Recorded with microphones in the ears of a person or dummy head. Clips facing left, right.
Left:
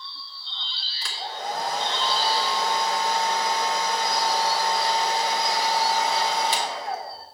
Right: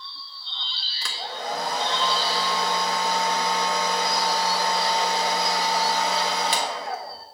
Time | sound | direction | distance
1.0 | a hair dryer | 60° right (ahead or behind) | 1.4 m